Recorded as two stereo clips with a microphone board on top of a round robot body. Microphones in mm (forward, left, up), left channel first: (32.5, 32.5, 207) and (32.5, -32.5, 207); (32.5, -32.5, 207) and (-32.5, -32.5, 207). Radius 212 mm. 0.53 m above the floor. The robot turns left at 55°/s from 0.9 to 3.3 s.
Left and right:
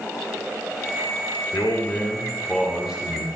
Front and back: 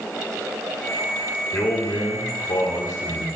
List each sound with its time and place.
1.5 s a man speaking: 60° left, 2.5 m; by 3.3 s 35° right, 2.5 m